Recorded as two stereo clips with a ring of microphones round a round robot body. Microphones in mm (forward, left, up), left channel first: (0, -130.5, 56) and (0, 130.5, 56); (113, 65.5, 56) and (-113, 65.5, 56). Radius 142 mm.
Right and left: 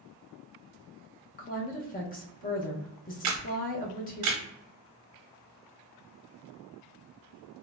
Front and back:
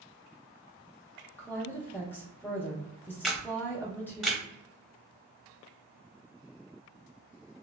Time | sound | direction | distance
1.4 | a woman speaking | 75° right | 0.6 m
3.2 | a camera shutter | 90° left | 0.6 m